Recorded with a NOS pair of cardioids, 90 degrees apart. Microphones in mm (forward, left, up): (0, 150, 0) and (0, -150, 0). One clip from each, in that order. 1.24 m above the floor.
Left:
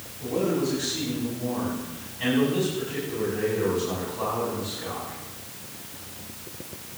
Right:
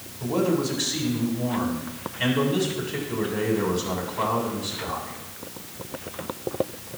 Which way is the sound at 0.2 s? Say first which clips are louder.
Right 2 dB; 55° right.